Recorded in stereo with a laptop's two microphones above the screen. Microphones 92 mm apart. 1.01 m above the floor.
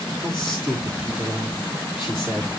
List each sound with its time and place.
0.2 s a man speaking: 30° right (ahead or behind), 2.5 m